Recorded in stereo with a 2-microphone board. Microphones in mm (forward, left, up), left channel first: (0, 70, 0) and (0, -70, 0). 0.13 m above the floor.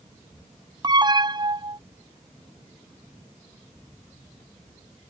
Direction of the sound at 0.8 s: 30° right (ahead or behind).